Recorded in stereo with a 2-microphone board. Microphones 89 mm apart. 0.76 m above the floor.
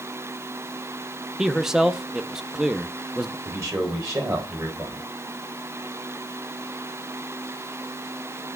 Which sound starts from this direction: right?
A man speaking, at 3.5 s.